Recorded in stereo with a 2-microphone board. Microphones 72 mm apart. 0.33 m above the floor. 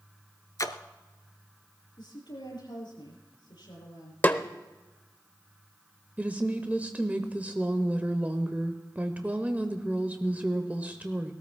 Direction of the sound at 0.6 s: 50° left (ahead or behind).